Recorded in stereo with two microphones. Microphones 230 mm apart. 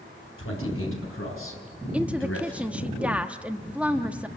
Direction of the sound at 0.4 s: 80° left.